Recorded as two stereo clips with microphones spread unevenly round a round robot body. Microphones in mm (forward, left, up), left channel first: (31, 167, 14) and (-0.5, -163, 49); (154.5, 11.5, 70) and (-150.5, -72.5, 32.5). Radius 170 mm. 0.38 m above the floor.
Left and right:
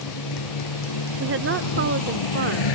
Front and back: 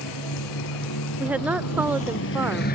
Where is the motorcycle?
55° left; by 2.8 s 80° left.